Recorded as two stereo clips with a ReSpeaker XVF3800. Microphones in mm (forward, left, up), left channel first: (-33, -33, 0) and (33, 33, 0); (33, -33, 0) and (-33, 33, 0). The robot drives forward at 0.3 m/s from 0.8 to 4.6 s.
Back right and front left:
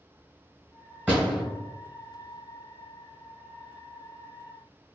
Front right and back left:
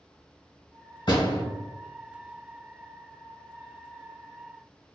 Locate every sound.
1.1 s a door slam: 30° right, 1.7 m; by 1.4 s 35° right, 1.6 m